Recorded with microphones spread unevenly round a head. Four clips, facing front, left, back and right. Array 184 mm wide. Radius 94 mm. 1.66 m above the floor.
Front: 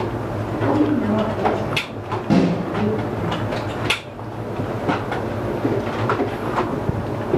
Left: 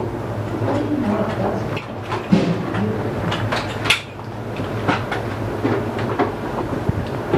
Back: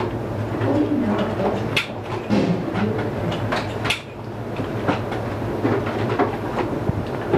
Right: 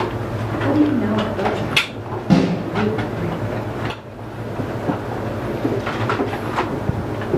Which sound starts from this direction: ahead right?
A snare drum, at 2.3 s.